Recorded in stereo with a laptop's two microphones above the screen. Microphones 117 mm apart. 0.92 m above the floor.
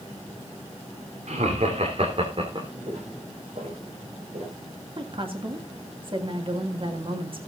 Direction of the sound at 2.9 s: 60° right (ahead or behind).